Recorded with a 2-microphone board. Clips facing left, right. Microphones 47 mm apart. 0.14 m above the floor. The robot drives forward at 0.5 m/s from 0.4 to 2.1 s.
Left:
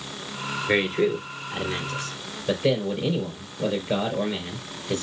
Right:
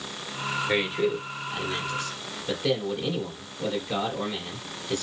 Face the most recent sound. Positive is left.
turn(degrees=25)  # may be behind; listen again after turning